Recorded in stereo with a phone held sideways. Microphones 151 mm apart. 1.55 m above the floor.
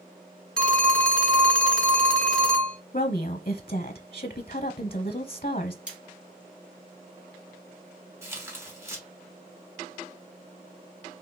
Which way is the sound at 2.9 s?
65° left (ahead or behind).